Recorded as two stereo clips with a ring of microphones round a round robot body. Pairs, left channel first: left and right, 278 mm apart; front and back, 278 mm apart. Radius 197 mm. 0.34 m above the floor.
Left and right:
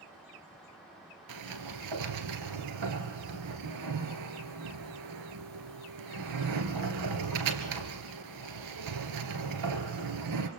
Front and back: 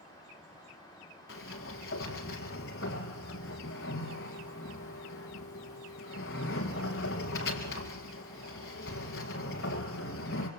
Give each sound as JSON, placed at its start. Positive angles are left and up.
{"t": 1.3, "sound": "a sliding door", "azimuth_deg": -65, "distance_m": 1.7}